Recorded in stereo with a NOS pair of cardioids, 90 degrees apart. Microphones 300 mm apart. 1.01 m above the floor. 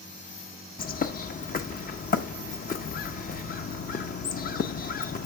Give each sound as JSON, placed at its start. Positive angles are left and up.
{"t": 0.8, "sound": "a bird", "azimuth_deg": 30, "distance_m": 0.7}